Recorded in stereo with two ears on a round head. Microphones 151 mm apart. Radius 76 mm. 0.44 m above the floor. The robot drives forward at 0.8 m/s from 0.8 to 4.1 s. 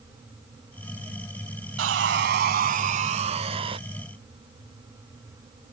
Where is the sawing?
85° right; by 3.8 s 30° right (ahead or behind).